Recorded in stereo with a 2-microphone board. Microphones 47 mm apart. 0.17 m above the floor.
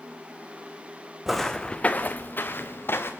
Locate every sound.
1.3 s footsteps: 5° right (ahead or behind), 0.8 m; by 3.1 s 55° left (ahead or behind), 2 m